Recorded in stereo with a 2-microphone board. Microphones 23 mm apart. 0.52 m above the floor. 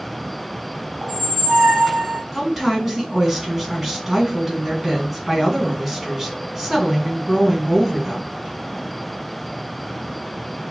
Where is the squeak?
30° right (ahead or behind), 1.2 m.